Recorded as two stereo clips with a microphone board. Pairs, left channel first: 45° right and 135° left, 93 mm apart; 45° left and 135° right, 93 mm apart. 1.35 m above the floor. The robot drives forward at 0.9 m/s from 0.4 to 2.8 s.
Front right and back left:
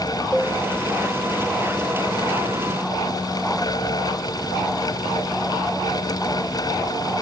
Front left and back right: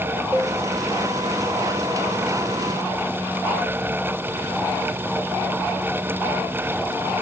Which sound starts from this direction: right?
A cowbell, at 0.3 s.